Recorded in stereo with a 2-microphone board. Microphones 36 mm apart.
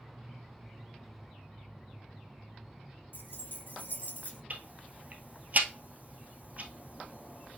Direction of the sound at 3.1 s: 60° left (ahead or behind).